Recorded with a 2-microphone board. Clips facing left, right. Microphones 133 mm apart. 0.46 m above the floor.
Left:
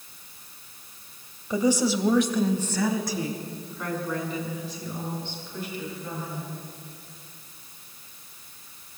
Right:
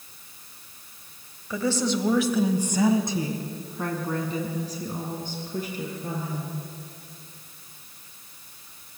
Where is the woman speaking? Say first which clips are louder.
Left 3 dB; 20° left (ahead or behind), 2 m; by 6.6 s 50° right (ahead or behind), 7 m.